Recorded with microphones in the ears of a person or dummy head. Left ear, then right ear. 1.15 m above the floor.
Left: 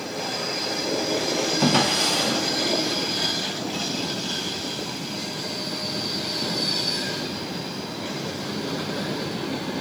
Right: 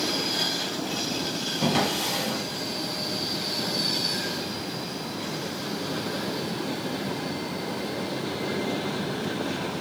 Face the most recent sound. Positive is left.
turn(degrees=60)  # may be behind; listen again after turning